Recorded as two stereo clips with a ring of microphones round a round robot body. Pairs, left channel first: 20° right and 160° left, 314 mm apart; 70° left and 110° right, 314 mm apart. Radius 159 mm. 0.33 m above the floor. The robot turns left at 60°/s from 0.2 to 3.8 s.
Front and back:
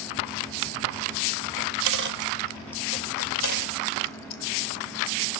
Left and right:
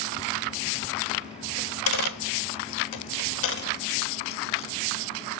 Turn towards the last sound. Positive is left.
turn(degrees=-5)